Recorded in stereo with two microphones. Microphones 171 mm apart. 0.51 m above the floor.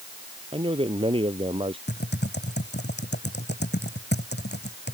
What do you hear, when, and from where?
0.5 s a man speaking: 30° right (ahead or behind)
1.9 s typing on a keyboard: 80° left